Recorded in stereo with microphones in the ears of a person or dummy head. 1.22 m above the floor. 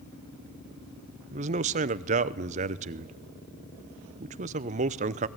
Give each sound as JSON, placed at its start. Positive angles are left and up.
{"t": 1.3, "sound": "a man speaking", "side_deg": -40, "distance_m": 0.7}